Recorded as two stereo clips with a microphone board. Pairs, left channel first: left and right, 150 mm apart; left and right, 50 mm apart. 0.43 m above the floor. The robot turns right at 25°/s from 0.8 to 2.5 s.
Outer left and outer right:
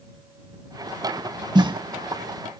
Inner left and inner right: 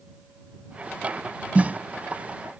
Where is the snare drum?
30° right (ahead or behind); by 1.8 s 35° right (ahead or behind).